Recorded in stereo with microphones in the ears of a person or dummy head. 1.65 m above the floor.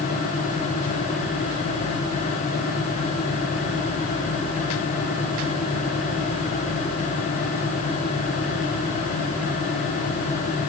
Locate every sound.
Only background noise.